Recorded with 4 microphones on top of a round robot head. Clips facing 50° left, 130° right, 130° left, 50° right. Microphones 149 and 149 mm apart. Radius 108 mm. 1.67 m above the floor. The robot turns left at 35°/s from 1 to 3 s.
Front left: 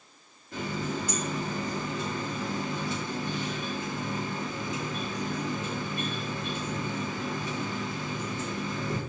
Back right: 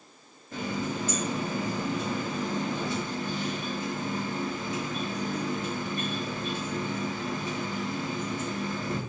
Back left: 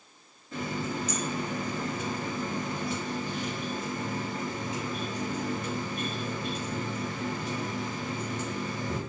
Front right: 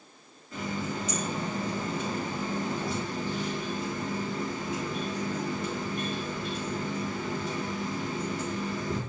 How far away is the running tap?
About 1.7 m.